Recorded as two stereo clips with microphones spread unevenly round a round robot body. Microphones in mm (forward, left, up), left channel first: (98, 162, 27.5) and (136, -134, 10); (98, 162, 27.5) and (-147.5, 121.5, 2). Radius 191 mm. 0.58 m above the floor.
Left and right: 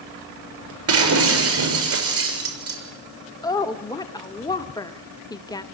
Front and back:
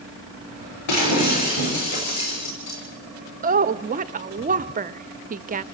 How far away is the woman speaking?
About 0.7 m.